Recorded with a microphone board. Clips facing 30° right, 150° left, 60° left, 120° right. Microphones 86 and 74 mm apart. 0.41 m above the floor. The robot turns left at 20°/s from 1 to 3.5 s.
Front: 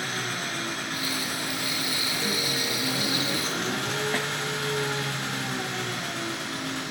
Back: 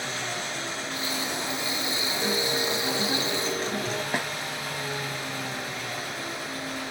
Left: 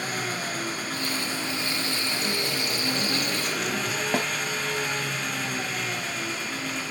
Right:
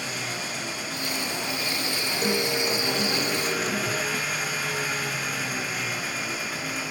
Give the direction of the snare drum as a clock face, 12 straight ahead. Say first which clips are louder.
Even, left 4 dB; 10 o'clock.